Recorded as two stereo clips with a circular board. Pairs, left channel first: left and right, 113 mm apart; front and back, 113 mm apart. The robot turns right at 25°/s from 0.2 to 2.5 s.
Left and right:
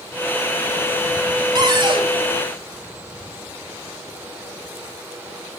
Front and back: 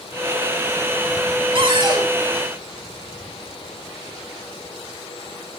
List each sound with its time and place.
1.6 s a cupboard door: 140° right, 1.5 m; by 2.1 s 125° right, 1.5 m